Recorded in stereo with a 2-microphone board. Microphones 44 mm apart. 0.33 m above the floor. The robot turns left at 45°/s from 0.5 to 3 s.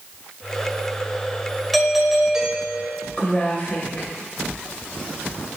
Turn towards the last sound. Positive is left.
turn(degrees=30)  # may be behind; listen again after turning